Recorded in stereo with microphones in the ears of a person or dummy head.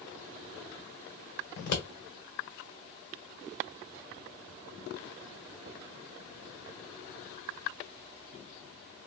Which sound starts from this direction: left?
Scissors, at 1.6 s.